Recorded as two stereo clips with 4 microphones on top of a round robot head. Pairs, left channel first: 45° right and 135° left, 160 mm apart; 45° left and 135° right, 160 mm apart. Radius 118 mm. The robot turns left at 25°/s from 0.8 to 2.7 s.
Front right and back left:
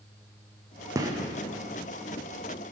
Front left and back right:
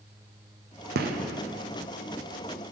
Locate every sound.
0.9 s a gunshot: 155° right, 0.6 m; by 1.2 s 160° right, 0.6 m